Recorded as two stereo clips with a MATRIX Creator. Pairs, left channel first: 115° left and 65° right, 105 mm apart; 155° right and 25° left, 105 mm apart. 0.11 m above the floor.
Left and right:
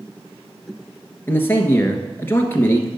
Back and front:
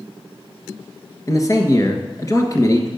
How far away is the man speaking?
About 1.4 m.